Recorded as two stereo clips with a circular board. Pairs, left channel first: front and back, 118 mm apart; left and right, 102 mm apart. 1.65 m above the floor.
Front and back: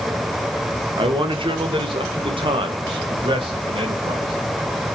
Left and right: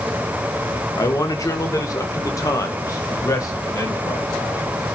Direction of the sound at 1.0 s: 140° left.